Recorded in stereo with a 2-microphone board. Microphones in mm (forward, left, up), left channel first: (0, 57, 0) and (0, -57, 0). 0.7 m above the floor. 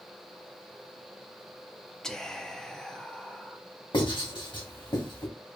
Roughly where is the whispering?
Centre.